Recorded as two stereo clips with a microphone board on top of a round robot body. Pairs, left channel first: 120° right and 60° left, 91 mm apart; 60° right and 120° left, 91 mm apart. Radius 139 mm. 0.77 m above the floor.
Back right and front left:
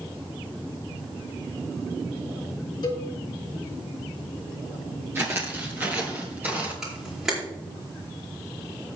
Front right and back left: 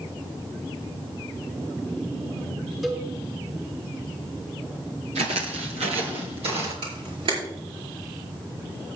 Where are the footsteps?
125° left, 0.9 m; by 6.7 s 135° left, 2.5 m.